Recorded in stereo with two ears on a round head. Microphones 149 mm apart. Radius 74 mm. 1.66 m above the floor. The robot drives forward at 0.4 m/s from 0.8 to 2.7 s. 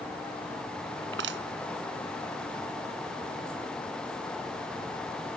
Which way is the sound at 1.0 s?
75° right (ahead or behind).